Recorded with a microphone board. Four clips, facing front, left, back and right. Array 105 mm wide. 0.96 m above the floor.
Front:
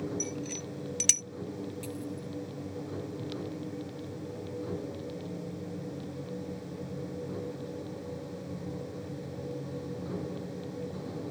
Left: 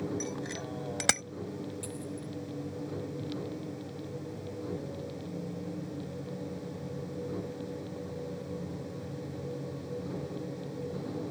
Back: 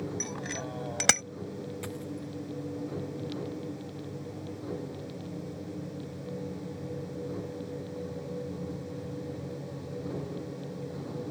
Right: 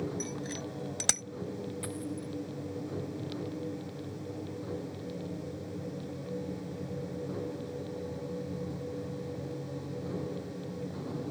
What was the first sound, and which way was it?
A bicycle bell, 170° left.